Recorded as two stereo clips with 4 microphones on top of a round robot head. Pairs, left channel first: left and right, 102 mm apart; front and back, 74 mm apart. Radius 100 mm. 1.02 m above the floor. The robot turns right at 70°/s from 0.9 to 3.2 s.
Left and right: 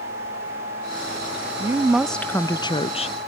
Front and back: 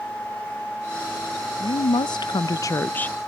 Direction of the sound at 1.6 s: 30° right.